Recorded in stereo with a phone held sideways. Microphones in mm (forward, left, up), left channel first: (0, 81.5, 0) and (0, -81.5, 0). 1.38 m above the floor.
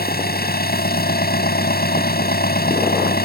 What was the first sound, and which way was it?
An engine running, 85° left.